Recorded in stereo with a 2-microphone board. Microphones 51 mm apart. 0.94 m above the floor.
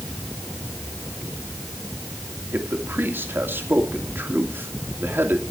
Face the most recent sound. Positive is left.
turn(degrees=-45)  # may be behind; listen again after turning